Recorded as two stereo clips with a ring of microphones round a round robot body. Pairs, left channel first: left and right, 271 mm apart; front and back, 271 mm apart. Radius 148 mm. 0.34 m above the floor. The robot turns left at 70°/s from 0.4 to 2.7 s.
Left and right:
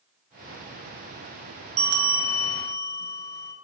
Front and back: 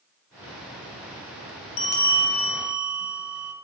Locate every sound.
1.8 s a bell: 70° right, 3 m; by 3.5 s 135° right, 3 m